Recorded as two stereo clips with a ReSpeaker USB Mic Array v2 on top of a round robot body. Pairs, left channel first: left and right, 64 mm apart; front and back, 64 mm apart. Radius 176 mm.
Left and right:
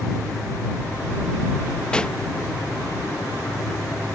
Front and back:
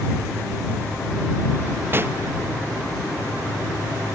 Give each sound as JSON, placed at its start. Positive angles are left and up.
{"t": 1.9, "sound": "a pop", "azimuth_deg": 160}